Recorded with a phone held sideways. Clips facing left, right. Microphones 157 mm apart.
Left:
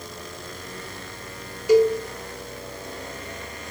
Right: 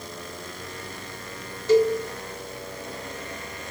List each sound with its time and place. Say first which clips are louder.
1.7 s a cowbell: left 2 dB; 10° left (ahead or behind), 1.1 m